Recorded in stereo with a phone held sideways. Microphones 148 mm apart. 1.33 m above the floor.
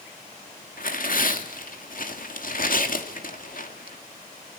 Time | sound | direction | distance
0.8 | tearing paper | 60° left (ahead or behind) | 2.5 m